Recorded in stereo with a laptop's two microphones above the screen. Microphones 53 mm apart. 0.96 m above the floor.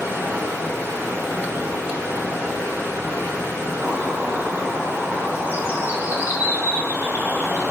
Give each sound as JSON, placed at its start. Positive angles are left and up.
{"t": 0.0, "sound": "running water", "side_deg": -65, "distance_m": 3.5}
{"t": 3.8, "sound": "a bird", "side_deg": -40, "distance_m": 1.6}